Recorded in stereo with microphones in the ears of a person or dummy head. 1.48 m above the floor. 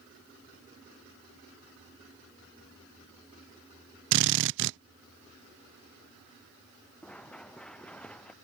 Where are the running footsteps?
10° left (ahead or behind).